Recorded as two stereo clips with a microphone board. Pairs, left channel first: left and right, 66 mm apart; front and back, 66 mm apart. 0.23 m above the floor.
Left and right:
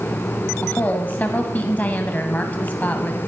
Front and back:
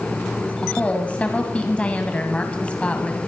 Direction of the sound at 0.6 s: 50° left.